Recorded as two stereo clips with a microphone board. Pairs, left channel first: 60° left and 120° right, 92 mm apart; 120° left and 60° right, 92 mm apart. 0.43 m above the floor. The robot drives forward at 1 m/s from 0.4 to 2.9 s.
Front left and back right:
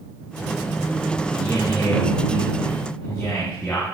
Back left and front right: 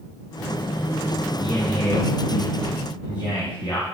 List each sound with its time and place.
1.4 s a man speaking: 105° left, 4.5 m; by 3.8 s 125° left, 5 m